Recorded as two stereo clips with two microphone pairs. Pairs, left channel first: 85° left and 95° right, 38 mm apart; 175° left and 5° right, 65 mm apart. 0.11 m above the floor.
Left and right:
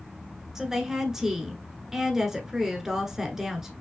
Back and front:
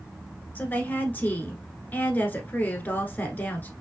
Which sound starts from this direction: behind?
A woman speaking, at 0.6 s.